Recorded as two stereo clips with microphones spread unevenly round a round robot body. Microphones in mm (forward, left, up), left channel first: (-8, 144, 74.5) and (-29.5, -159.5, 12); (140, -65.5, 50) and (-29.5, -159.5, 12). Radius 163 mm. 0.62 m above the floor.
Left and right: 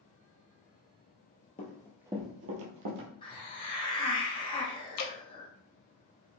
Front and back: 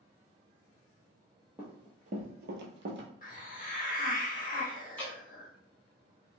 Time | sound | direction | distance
1.6 | running footsteps | 110° left | 0.7 m
3.2 | a hiss | 5° left | 1.2 m
5.0 | dripping | 120° left | 0.7 m